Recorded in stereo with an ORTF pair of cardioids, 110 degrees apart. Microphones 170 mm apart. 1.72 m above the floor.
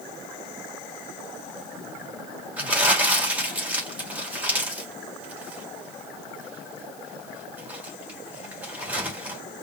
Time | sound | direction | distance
2.6 | crumpling | 10° right | 3 m